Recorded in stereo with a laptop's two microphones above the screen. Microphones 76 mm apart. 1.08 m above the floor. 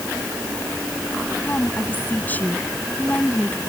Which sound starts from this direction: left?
A woman speaking, at 1.4 s.